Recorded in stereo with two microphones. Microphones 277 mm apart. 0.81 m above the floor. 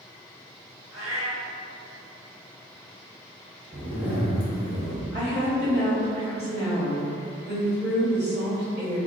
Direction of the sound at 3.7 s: 65° right (ahead or behind).